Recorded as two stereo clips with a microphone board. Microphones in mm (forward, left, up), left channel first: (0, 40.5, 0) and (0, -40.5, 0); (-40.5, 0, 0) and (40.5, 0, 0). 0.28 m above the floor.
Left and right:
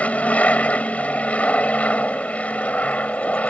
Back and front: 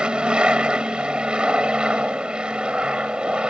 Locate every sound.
0.0 s an aircraft: 55° left